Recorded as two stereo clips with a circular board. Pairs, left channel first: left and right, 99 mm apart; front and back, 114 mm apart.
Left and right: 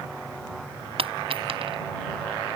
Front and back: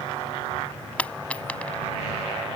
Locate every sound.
1.0 s a dropped coin: 80° right